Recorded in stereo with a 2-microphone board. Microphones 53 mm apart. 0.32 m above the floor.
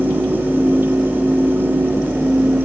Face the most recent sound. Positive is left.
No sound to turn to.